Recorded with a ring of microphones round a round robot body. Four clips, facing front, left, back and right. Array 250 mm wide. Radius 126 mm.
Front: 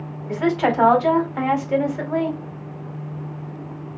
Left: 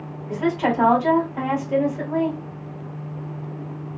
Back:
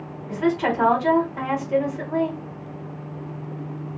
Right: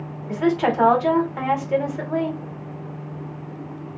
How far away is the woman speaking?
About 1.3 m.